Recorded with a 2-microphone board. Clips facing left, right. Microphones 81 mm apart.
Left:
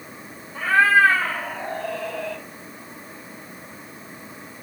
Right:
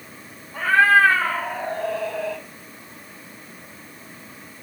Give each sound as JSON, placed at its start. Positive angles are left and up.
{"t": 0.5, "sound": "a cat meowing", "side_deg": -55, "distance_m": 1.5}